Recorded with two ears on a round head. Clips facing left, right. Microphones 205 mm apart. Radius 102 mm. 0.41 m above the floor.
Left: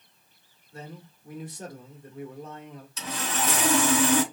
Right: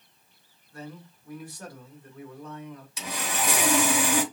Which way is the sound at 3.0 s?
10° right (ahead or behind).